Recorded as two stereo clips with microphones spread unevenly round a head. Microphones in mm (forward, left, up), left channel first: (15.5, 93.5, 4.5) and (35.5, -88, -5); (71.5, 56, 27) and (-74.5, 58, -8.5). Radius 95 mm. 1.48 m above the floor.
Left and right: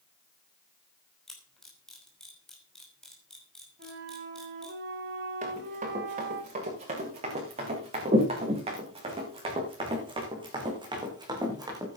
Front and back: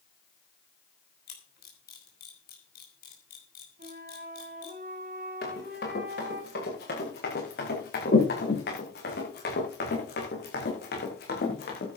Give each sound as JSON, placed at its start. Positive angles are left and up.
{"t": 1.3, "sound": "a camera shutter", "azimuth_deg": 10, "distance_m": 5.5}
{"t": 3.8, "sound": "a flute", "azimuth_deg": -130, "distance_m": 5.5}
{"t": 5.4, "sound": "running footsteps", "azimuth_deg": -35, "distance_m": 8.5}